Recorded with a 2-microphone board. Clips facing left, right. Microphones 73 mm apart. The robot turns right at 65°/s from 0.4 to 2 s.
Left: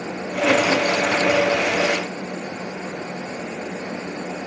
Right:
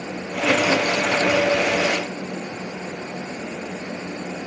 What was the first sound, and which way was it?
Only background noise.